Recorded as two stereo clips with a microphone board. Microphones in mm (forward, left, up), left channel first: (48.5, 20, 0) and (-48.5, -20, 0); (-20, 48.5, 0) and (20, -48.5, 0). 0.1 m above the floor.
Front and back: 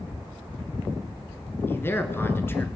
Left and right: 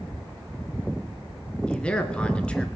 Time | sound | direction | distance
1.7 | a man speaking | 50° left | 1.2 m